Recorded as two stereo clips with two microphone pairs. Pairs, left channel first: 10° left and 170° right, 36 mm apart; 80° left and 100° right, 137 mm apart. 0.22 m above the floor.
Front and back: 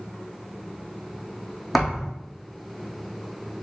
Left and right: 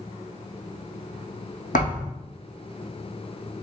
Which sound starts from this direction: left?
A thud, at 1.7 s.